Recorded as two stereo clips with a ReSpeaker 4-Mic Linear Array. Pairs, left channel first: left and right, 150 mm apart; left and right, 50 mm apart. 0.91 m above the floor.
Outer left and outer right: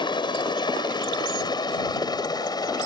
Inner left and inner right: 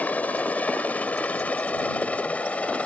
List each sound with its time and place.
0.0 s a helicopter: 30° left (ahead or behind); by 2.9 s 25° left (ahead or behind)